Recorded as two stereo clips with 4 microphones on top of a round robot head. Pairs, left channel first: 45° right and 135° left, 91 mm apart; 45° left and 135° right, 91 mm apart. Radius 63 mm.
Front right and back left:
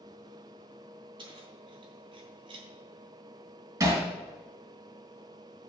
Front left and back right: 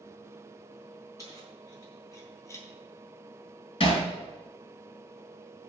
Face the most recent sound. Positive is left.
turn(degrees=75)